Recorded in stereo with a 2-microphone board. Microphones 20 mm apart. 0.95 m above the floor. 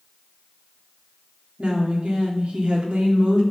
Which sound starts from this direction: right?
A woman speaking, at 1.6 s.